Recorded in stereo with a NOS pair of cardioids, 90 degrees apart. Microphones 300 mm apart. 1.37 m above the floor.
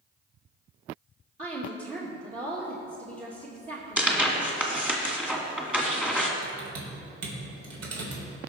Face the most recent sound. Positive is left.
turn(degrees=-55)